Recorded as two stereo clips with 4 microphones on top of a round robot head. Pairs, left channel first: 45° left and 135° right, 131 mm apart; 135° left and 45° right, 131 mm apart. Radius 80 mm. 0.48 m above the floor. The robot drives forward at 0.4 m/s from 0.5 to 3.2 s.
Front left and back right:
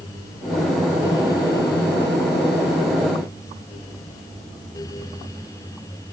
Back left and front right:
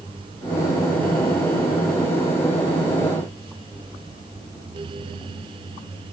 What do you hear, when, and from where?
Only background noise.